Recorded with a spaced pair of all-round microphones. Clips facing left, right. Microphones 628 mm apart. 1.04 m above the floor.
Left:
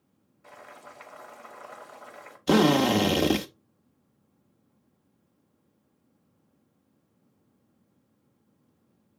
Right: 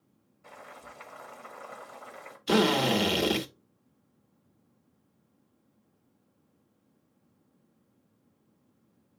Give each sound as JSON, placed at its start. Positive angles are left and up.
{"t": 0.4, "sound": "boiling", "side_deg": -30, "distance_m": 2.0}
{"t": 2.5, "sound": "a drill", "side_deg": 70, "distance_m": 1.3}